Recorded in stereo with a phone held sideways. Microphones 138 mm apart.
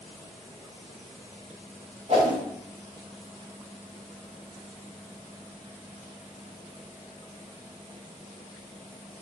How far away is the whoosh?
About 0.9 m.